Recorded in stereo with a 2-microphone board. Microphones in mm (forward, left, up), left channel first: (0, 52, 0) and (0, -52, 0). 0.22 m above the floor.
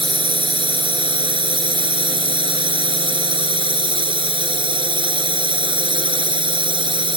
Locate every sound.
0.0 s a drone: 55° right (ahead or behind)